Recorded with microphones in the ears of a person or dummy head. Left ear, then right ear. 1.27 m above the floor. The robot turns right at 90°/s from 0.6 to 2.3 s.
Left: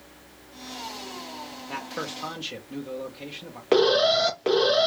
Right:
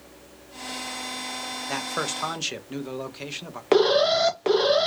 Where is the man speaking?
115° right, 0.8 m; by 3.6 s 60° right, 0.8 m.